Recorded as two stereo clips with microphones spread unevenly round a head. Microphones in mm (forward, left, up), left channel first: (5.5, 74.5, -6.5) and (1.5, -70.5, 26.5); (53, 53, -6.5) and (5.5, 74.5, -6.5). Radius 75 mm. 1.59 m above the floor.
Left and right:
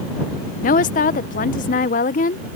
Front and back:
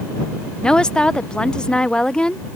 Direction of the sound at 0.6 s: 50° left.